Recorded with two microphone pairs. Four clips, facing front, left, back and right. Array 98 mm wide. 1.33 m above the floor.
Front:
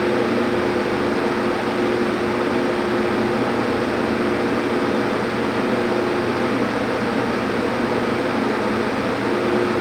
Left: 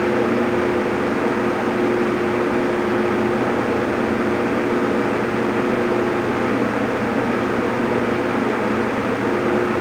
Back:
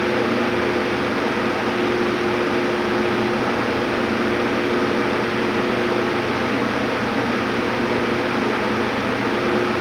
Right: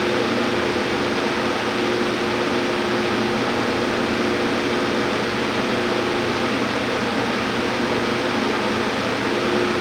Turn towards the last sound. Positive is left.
No sound to turn to.